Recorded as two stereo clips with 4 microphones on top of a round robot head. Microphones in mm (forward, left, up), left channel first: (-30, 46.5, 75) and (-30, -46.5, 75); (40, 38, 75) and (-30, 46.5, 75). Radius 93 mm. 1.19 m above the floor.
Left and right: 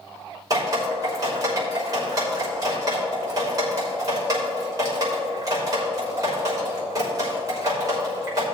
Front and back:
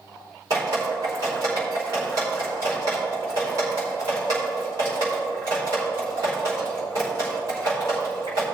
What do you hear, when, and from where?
0.5 s dripping: 140° right, 3.5 m